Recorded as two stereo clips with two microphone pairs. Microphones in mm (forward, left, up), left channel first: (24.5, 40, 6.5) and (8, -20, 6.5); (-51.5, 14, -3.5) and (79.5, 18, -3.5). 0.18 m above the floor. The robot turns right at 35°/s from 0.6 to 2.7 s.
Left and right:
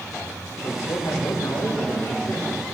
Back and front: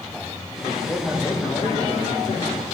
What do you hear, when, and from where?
0.6 s a man speaking: 75° left, 8 m; by 2.6 s 145° left, 8 m